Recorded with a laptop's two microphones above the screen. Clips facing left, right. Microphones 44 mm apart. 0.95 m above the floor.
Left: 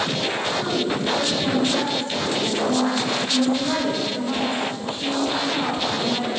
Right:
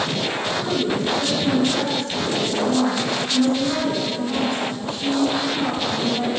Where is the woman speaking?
30° left (ahead or behind), 4.5 m.